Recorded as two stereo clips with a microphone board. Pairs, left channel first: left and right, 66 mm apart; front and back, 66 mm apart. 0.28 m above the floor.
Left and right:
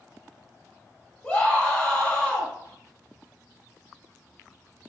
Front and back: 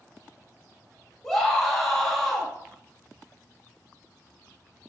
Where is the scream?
75° left, 1.2 m.